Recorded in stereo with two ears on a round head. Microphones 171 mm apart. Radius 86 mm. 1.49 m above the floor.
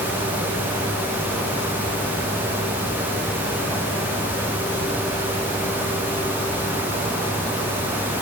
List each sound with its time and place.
Only background noise.